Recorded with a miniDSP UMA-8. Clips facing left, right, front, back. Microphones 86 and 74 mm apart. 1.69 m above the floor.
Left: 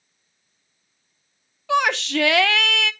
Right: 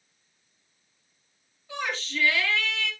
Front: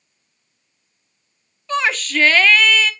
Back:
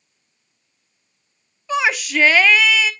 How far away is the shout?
About 1.0 m.